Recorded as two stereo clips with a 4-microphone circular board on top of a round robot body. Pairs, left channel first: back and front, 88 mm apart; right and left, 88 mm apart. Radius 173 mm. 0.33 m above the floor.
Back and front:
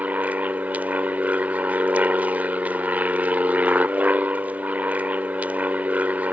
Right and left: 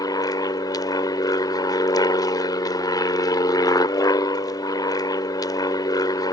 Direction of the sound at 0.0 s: 70° right.